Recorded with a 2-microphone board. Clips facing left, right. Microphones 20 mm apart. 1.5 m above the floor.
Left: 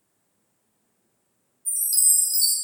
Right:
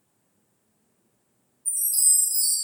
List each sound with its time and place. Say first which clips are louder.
1.6 s a chime: left 1 dB; 60° left (ahead or behind), 0.7 m